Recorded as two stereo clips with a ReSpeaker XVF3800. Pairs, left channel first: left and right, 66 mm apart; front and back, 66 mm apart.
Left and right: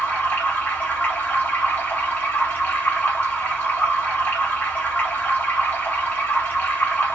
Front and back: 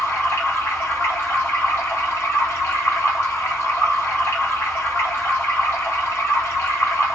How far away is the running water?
About 1.3 m.